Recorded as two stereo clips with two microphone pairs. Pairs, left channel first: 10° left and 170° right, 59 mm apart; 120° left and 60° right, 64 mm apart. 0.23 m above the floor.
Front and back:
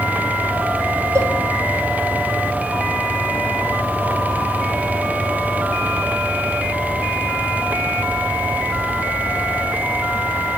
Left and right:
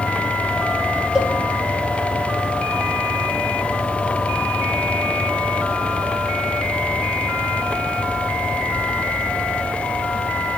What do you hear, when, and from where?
1.1 s a cowbell: 135° right, 2.5 m